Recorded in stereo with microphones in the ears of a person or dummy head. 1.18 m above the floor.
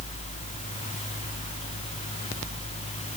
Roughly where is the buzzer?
No buzzer in this recording.